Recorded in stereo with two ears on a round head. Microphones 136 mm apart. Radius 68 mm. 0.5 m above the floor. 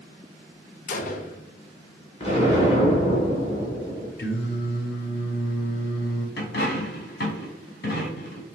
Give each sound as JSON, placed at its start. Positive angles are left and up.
{"t": 0.9, "sound": "a gunshot", "side_deg": 55, "distance_m": 0.6}
{"t": 2.2, "sound": "an explosion", "side_deg": 40, "distance_m": 1.5}
{"t": 4.2, "sound": "singing", "side_deg": 65, "distance_m": 1.0}
{"t": 6.4, "sound": "a dropped coin", "side_deg": 65, "distance_m": 1.2}